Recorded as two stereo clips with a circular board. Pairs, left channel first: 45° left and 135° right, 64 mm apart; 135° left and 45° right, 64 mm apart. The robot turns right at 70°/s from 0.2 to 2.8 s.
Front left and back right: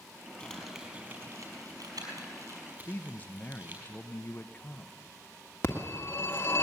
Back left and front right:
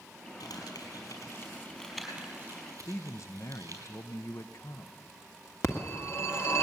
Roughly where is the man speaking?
Left.